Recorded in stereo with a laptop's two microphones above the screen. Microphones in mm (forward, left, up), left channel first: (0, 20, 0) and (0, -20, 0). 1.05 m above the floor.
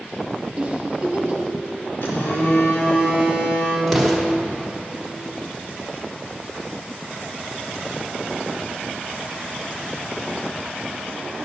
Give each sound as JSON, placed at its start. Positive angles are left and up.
{"t": 0.6, "sound": "a giggle", "side_deg": -30, "distance_m": 1.1}
{"t": 2.0, "sound": "a phone buzzing", "side_deg": 65, "distance_m": 1.9}
{"t": 3.9, "sound": "an explosion", "side_deg": 5, "distance_m": 1.1}